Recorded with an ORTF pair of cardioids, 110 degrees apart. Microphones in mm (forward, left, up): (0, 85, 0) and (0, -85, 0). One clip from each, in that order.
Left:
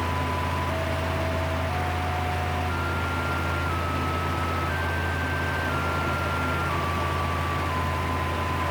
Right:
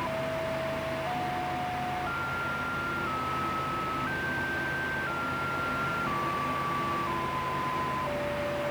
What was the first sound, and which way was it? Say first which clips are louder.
A fan: left 3 dB; 65° left.